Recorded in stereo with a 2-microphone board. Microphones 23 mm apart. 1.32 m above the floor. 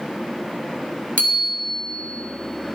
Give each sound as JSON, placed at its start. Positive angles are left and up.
{"t": 1.2, "sound": "a bicycle bell", "side_deg": 70, "distance_m": 3.0}